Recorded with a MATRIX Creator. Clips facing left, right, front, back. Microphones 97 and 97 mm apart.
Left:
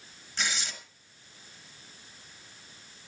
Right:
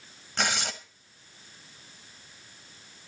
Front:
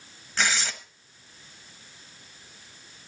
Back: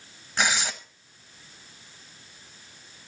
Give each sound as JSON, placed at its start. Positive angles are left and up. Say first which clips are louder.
{"t": 0.4, "sound": "tearing paper", "louder": "right 5 dB, back 1 dB", "azimuth_deg": -105, "distance_m": 0.9}